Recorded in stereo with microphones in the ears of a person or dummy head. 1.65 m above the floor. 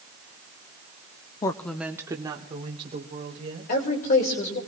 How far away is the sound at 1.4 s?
About 0.5 m.